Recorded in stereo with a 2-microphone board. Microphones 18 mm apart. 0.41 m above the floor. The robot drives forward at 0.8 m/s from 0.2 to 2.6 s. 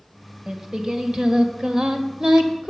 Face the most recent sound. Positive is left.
turn(degrees=-45)  # may be behind; listen again after turning